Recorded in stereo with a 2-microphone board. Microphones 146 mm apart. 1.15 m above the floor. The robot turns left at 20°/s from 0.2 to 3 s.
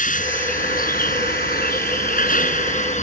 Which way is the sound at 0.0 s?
115° left.